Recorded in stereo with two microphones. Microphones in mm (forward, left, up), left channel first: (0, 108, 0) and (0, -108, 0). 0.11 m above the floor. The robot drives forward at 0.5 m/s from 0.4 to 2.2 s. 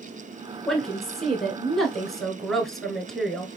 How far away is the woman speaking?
About 1.1 m.